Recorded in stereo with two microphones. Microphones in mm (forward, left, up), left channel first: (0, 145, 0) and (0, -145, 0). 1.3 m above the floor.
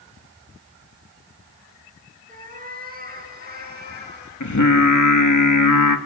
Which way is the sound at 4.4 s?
75° left (ahead or behind).